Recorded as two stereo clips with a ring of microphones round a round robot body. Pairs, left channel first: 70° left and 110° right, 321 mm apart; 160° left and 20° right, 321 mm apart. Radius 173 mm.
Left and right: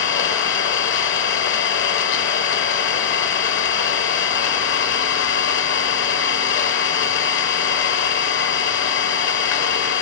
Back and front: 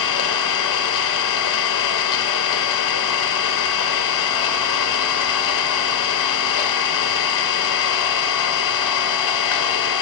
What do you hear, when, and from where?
0.0 s an engine running: 125° left, 1.1 m